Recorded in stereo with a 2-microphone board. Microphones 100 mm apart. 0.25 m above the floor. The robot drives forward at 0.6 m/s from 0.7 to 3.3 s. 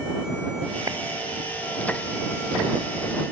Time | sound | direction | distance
0.9 | a clap | 35° right (ahead or behind) | ?